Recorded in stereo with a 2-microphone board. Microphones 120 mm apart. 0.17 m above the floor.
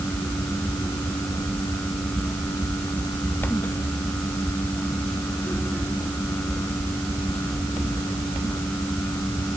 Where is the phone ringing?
No phone ringing in this recording.